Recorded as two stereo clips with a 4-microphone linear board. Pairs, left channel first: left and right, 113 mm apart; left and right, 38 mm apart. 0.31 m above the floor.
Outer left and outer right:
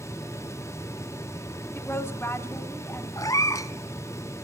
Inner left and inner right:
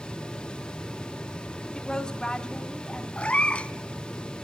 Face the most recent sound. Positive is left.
turn(degrees=30)  # may be behind; listen again after turning